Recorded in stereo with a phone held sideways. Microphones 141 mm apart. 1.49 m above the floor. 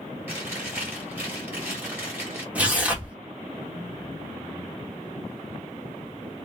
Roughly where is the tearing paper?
Centre.